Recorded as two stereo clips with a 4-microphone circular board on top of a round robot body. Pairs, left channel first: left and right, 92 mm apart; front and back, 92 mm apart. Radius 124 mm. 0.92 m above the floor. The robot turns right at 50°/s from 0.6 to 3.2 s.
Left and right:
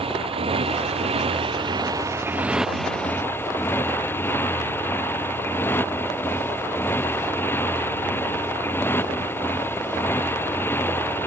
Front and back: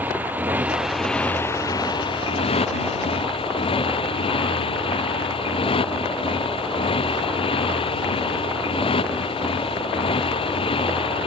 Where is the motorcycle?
110° right; by 11.3 s 20° left.